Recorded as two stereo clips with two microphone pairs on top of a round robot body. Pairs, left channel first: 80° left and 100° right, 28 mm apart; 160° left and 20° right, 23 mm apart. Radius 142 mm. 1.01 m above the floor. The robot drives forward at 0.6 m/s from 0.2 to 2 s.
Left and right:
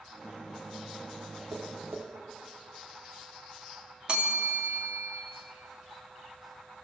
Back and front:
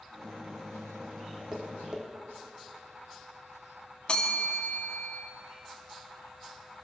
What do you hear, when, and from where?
1.5 s tapping: 80° right, 3 m; by 2.0 s 85° right, 2.5 m
4.1 s a bell: 155° right, 3 m